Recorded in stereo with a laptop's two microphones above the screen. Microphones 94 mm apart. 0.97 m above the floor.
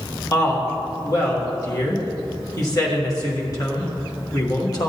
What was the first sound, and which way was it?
A woman speaking, 40° left (ahead or behind).